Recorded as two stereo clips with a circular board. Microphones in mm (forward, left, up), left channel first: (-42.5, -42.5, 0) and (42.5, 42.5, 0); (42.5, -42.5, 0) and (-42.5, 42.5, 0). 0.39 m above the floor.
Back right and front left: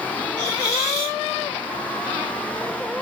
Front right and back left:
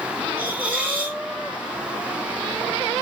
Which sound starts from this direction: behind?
A hiss, at 0.4 s.